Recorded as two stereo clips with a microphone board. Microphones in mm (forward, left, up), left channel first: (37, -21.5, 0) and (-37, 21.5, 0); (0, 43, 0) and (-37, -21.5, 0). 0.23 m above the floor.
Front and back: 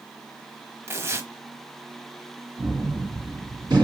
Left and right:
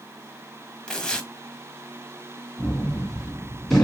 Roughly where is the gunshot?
Behind left.